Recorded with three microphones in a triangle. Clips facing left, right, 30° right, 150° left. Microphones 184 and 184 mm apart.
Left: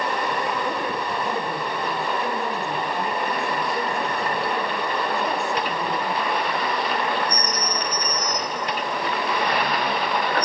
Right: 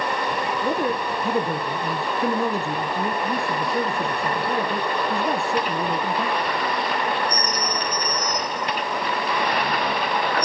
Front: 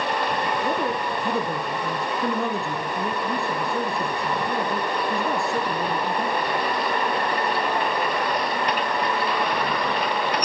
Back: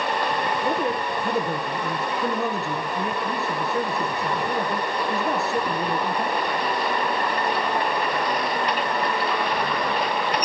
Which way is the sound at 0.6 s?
125° right.